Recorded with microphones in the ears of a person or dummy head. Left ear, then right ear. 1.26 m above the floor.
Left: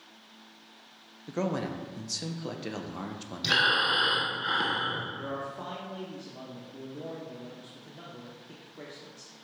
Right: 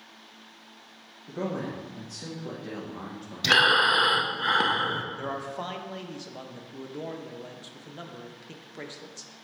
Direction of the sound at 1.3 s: 70° left (ahead or behind).